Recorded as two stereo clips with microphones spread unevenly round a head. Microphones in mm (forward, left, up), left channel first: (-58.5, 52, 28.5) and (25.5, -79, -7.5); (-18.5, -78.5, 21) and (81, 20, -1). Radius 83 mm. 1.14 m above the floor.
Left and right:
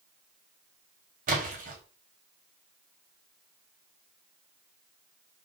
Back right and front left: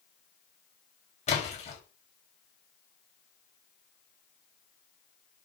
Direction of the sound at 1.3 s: 95° right.